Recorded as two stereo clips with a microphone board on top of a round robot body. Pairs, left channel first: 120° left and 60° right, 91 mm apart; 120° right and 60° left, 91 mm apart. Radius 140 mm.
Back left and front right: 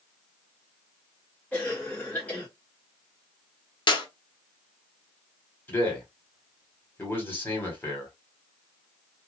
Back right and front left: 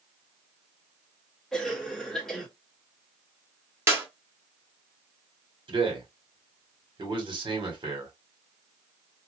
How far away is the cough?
About 1.2 m.